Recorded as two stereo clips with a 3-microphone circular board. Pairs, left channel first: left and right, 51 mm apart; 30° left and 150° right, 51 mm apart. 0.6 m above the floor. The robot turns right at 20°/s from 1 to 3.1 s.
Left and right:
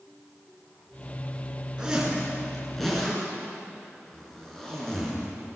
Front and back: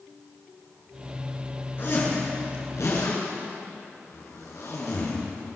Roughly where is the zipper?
Ahead.